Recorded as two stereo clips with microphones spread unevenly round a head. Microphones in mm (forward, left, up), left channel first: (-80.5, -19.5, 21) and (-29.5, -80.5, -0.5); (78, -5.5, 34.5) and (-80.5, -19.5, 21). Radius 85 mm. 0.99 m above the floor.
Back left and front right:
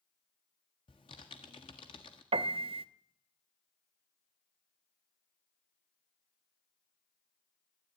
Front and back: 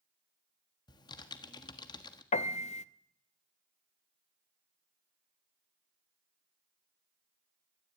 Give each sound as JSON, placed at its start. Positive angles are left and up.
{"t": 0.9, "sound": "typing on a keyboard", "azimuth_deg": 70, "distance_m": 1.5}
{"t": 2.3, "sound": "a piano", "azimuth_deg": -45, "distance_m": 0.8}